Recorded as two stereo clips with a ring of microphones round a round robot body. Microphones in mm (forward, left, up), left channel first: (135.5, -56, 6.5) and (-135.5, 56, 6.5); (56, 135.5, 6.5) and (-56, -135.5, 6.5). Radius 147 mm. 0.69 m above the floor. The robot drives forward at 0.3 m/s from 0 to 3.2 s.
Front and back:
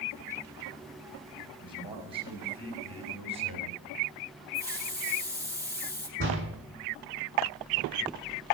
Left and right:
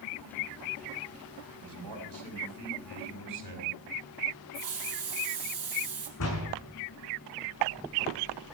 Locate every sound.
1.6 s a man speaking: 130° right, 5 m; by 3.8 s 135° right, 5 m
4.5 s a hiss: 125° right, 3.5 m
6.2 s a door slam: 105° left, 5 m